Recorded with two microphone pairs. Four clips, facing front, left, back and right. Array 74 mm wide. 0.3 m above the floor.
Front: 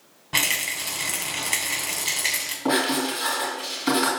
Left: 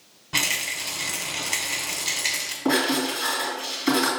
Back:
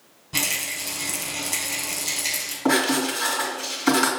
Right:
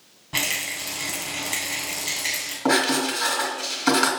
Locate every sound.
0.3 s a rattle: straight ahead, 2 m
2.6 s writing: 115° right, 3 m